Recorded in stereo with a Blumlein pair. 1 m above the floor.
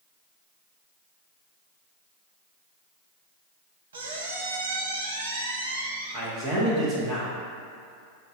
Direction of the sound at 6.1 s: 35° right.